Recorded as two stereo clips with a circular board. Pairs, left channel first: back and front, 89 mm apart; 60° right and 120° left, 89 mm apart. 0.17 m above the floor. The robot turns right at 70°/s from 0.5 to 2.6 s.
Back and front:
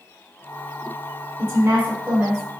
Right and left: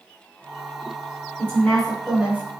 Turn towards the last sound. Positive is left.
turn(degrees=80)